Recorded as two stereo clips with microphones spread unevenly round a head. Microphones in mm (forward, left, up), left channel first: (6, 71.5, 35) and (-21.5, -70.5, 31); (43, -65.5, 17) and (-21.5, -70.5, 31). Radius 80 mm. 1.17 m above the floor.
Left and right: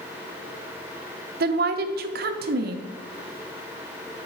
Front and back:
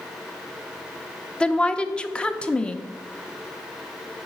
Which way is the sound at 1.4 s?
70° right.